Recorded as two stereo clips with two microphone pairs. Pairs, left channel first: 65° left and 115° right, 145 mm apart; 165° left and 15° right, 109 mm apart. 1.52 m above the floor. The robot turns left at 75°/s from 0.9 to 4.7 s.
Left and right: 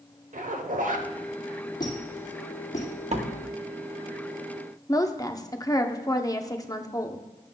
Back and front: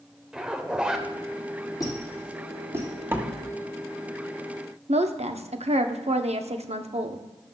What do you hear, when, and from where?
0.3 s a zipper: 95° right, 0.9 m; by 1.1 s 110° right, 0.9 m
1.8 s a squeak: 120° left, 3 m; by 2.9 s 35° left, 3 m
3.1 s a door slam: 85° right, 1.0 m; by 3.3 s 100° right, 1.0 m
4.9 s a woman speaking: 5° right, 0.7 m